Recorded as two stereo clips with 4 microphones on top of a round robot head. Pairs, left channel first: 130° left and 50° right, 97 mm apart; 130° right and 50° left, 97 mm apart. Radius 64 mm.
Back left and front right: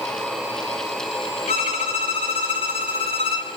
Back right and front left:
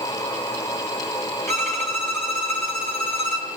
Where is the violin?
165° left, 3.5 m.